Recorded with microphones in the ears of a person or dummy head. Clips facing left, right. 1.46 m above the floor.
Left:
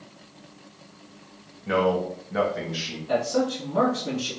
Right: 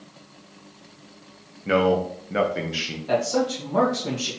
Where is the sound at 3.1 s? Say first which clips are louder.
Right 1 dB; 85° right, 1.2 m.